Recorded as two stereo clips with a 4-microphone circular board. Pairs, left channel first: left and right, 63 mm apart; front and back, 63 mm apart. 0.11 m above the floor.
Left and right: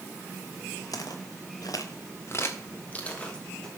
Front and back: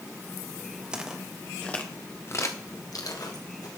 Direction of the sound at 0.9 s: 105° left.